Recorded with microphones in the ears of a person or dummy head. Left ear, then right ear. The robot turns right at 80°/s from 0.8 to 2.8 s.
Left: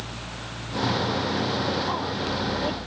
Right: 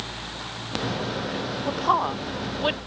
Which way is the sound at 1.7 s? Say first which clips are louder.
Right 4 dB; 30° right (ahead or behind).